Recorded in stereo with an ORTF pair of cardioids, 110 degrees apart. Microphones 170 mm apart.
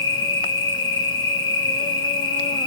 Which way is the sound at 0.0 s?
30° left.